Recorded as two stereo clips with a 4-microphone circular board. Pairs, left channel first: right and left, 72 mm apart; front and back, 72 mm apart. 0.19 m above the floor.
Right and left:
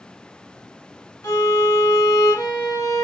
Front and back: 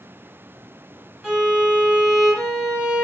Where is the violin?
95° right, 1.1 m.